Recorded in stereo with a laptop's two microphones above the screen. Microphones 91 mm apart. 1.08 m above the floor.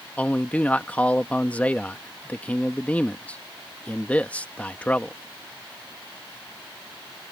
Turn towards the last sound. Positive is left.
turn(degrees=15)  # may be behind; listen again after turning